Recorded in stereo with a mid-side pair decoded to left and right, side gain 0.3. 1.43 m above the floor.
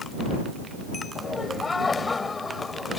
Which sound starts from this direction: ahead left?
Laughter, at 1.1 s.